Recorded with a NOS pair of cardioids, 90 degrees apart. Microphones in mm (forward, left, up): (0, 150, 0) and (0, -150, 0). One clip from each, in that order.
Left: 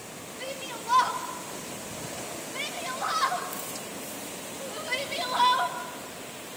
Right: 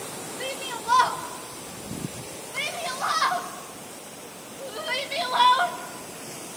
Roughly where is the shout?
Ahead right.